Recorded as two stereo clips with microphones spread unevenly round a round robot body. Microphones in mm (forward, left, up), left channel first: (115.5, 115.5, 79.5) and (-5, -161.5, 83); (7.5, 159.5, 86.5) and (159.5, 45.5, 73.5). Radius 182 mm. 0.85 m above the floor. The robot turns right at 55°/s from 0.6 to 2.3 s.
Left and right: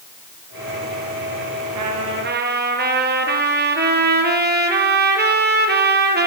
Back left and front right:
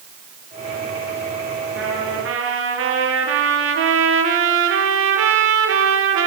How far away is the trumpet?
About 4 m.